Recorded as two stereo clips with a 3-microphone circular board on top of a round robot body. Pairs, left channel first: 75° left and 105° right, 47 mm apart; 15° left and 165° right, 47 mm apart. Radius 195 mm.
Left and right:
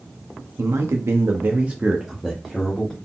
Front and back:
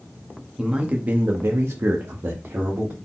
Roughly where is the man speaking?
Right.